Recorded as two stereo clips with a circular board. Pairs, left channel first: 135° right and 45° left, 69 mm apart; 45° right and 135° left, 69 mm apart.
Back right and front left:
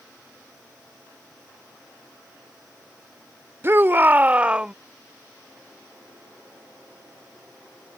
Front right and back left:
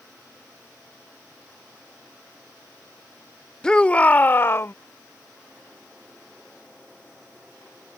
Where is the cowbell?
No cowbell in this recording.